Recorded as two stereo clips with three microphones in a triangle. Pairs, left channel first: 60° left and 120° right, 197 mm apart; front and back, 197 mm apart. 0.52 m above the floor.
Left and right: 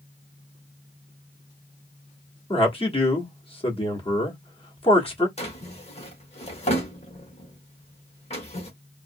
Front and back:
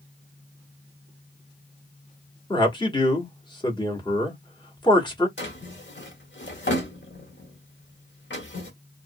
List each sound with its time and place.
2.5 s a man speaking: 40° left, 1.1 m
5.4 s a drawer: 5° left, 1.0 m